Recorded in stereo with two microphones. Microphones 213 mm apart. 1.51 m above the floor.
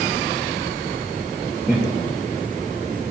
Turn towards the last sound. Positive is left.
turn(degrees=10)  # may be behind; listen again after turning